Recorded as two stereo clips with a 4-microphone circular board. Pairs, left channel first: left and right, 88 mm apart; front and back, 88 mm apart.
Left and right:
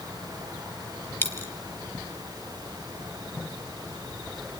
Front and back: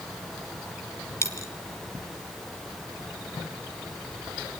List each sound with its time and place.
1.2 s a dropped coin: 40° left, 1.4 m